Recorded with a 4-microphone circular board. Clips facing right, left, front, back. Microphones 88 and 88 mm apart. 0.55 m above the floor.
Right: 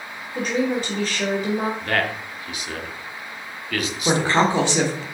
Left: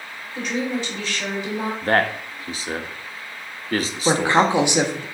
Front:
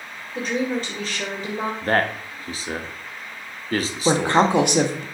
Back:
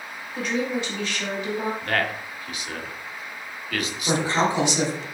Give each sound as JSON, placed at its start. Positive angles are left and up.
{"t": 0.3, "sound": "a woman speaking", "azimuth_deg": -50, "distance_m": 2.5}
{"t": 1.8, "sound": "a man speaking", "azimuth_deg": 45, "distance_m": 0.8}
{"t": 4.0, "sound": "a woman speaking", "azimuth_deg": 20, "distance_m": 1.2}